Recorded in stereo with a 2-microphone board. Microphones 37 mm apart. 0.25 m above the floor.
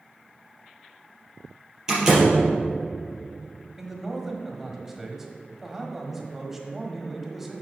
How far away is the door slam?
About 3.5 m.